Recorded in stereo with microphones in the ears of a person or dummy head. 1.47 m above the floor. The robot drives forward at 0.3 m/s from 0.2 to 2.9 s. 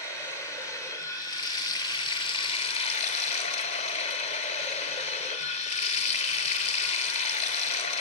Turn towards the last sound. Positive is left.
turn(degrees=35)  # may be behind; listen again after turning